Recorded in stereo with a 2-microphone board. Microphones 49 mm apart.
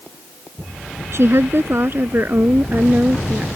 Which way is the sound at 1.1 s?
60° right (ahead or behind).